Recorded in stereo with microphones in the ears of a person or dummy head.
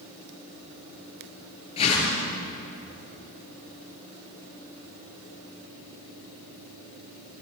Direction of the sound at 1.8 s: 30° left (ahead or behind).